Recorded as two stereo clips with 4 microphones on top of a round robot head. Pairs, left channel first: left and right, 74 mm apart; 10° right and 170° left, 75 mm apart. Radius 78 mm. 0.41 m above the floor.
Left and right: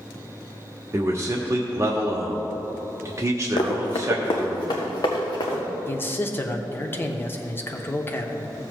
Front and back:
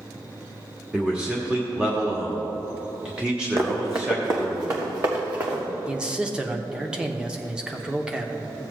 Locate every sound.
0.9 s a man speaking: 115° right, 1.1 m
3.6 s running footsteps: 115° left, 1.4 m; by 5.6 s 120° left, 2.5 m
5.9 s a man speaking: 105° left, 0.9 m